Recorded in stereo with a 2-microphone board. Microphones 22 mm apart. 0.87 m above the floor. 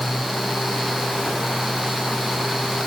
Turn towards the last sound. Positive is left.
No sound to turn to.